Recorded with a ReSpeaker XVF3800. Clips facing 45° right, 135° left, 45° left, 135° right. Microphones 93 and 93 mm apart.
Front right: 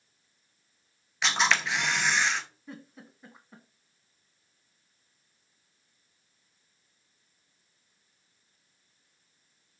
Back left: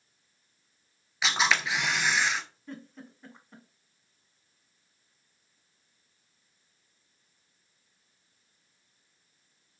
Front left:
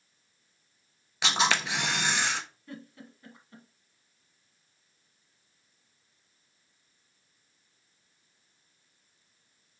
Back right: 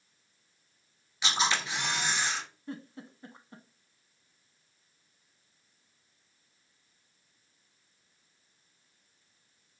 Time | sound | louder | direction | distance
1.2 | a camera shutter | even, front left 3 dB | 50° left | 0.6 m
2.7 | a giggle | back left 2 dB, back right 3 dB | 125° right | 0.7 m